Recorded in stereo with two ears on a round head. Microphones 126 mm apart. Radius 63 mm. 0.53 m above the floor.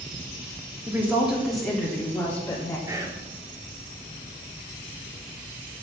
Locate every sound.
0.9 s a woman speaking: 20° right (ahead or behind), 1.1 m; by 2.8 s 15° left (ahead or behind), 2.5 m
2.9 s whispering: 20° right (ahead or behind), 1.1 m